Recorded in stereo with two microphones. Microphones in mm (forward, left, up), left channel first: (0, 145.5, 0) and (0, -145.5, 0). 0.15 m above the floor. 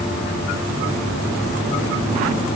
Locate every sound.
Only background noise.